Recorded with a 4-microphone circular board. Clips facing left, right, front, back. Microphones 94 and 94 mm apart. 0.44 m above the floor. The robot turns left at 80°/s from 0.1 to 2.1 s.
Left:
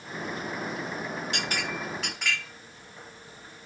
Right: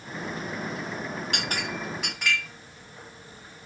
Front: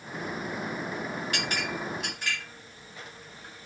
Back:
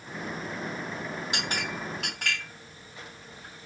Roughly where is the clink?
Behind right.